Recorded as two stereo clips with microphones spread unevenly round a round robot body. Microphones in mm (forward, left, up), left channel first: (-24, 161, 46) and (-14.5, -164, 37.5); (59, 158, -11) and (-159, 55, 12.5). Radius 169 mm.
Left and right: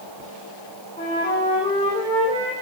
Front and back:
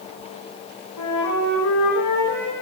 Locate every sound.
1.0 s a flute: 20° left, 4.5 m